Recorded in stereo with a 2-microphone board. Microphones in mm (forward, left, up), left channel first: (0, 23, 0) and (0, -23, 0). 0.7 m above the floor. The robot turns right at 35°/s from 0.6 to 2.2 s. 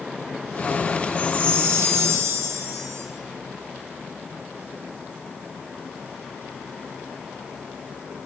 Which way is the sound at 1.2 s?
135° right.